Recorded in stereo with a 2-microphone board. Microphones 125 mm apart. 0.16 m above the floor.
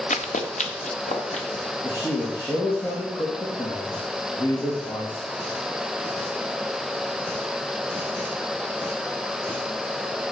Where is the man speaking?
40° left (ahead or behind), 3.5 m.